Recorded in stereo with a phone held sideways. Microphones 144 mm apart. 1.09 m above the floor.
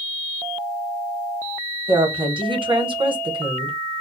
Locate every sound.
1.9 s a woman speaking: 35° right (ahead or behind), 0.8 m